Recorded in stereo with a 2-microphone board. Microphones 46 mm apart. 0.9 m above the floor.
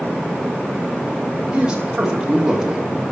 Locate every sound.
1.5 s a man speaking: 15° right (ahead or behind), 3.5 m; by 2.9 s 10° right (ahead or behind), 2 m